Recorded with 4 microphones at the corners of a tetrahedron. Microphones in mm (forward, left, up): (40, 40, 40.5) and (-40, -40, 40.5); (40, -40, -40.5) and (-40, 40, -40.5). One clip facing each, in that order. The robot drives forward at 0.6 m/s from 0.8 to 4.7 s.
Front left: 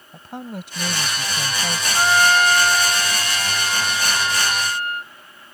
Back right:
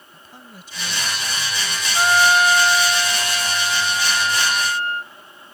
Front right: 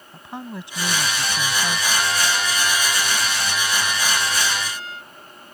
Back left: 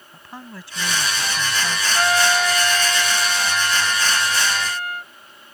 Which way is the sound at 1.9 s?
140° left.